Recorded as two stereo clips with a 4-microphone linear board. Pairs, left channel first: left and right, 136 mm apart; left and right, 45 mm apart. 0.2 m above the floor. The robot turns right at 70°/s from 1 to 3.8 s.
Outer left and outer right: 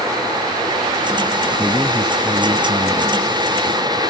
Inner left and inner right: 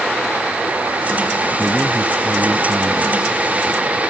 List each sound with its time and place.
1.6 s a man speaking: 160° right; by 4.0 s 5° right